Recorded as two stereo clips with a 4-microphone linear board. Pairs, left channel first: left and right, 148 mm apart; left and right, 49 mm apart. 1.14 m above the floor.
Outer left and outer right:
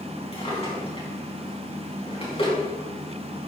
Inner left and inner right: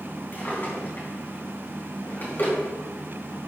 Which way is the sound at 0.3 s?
40° left (ahead or behind).